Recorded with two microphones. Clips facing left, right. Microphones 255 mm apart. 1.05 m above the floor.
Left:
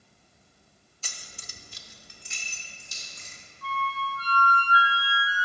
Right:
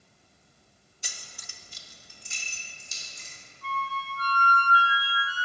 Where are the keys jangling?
15° right (ahead or behind), 0.7 m; by 3.3 s 65° left (ahead or behind), 2.5 m.